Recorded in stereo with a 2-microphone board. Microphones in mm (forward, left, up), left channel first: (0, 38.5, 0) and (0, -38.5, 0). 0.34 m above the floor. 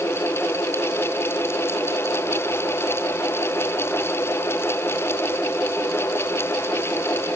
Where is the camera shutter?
I don't hear a camera shutter.